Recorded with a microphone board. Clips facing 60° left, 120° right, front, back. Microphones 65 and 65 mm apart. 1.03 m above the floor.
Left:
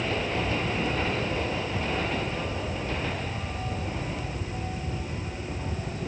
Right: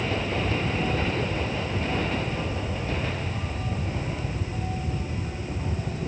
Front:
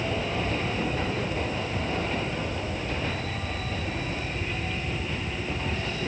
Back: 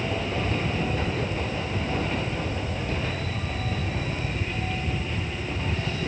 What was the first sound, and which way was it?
Only background noise.